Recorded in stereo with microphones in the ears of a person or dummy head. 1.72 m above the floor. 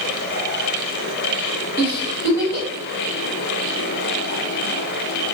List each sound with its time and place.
1.8 s a giggle: 15° right (ahead or behind), 1.3 m